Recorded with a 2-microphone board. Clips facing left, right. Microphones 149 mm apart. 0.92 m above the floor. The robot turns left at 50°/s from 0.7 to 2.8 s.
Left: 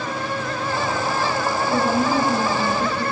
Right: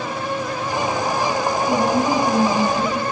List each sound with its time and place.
1.7 s a woman speaking: 35° right, 7 m; by 3.0 s 90° right, 7 m